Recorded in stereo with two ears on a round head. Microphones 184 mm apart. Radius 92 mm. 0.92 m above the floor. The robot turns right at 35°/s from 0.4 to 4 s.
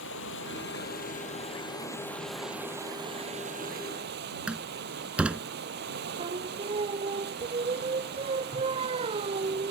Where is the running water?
110° left; by 9.7 s 125° right.